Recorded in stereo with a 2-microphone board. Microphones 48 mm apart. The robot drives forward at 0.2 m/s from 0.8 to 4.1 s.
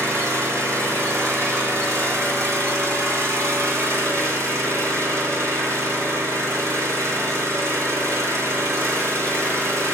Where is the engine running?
80° right, 2.5 m; by 9.9 s 85° right, 2.5 m.